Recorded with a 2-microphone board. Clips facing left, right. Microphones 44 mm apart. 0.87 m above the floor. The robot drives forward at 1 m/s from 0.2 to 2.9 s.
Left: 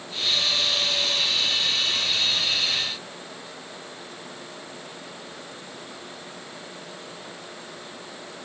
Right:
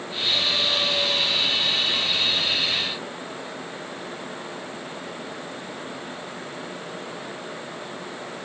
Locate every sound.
Only background noise.